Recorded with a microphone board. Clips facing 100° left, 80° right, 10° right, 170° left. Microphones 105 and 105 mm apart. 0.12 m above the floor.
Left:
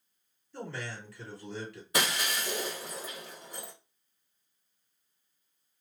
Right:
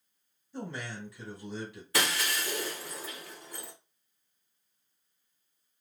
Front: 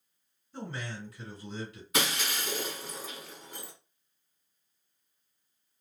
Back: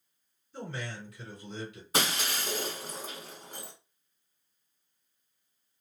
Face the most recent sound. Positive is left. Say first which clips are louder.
# even, back 1 dB
turn(degrees=155)